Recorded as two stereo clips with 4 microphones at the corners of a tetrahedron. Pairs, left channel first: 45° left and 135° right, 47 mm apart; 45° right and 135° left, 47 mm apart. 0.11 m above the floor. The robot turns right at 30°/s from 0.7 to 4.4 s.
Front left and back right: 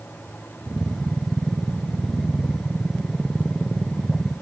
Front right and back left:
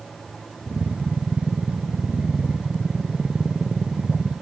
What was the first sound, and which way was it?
Only background noise.